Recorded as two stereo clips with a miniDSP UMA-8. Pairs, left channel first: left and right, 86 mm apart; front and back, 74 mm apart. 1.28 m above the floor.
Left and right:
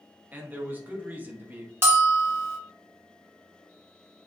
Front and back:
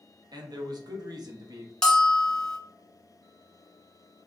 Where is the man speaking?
160° right, 0.6 m.